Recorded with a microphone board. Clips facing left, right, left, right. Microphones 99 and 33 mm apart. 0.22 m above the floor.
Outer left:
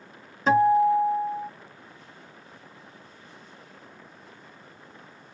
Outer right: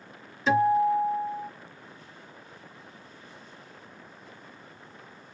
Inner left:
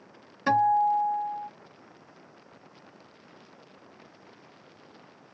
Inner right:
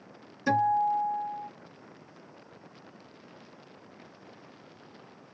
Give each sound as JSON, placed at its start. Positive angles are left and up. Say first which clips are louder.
{"t": 0.5, "sound": "a guitar", "louder": "outer left 3 dB, inner left 3 dB", "side_deg": 45, "distance_m": 1.1}